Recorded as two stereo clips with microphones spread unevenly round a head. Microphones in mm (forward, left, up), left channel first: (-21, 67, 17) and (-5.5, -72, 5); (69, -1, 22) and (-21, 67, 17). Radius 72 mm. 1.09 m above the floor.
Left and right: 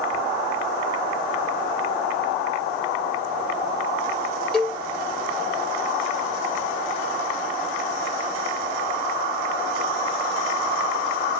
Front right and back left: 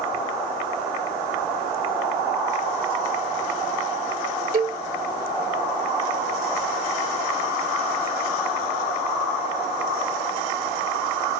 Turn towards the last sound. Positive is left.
turn(degrees=180)